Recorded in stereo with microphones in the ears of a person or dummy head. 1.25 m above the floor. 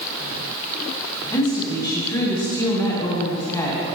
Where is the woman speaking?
20° left (ahead or behind), 2.5 m.